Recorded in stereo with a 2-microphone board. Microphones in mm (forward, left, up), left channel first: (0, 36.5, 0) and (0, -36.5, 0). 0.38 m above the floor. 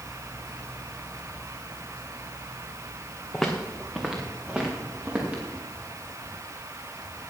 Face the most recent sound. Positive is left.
turn(degrees=-20)  # may be behind; listen again after turning